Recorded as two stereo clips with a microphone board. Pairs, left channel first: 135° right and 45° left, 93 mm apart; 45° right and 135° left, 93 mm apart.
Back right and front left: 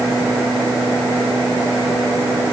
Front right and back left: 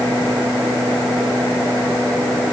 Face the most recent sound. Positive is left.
No sound to turn to.